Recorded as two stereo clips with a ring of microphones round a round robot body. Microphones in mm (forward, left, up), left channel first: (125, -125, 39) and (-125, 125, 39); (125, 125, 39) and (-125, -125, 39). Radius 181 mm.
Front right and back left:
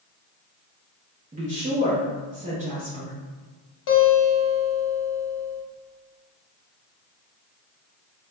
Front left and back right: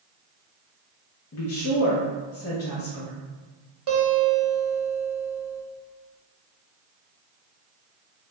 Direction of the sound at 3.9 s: 85° right.